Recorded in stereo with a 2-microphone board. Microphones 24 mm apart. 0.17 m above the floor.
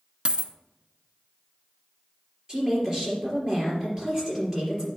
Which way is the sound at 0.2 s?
45° right (ahead or behind).